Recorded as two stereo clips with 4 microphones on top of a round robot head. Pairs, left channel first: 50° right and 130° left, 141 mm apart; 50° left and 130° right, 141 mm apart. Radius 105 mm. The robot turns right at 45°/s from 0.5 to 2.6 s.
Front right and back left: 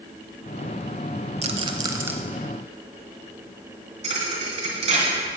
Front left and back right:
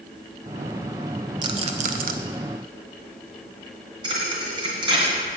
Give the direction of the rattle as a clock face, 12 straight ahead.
6 o'clock.